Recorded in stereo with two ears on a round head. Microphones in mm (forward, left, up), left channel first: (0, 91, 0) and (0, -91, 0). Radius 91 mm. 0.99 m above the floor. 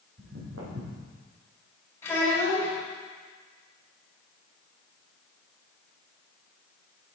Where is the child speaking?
15° left (ahead or behind), 3 m.